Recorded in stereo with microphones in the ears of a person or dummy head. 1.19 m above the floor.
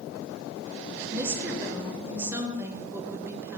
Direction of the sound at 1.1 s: 10° right (ahead or behind).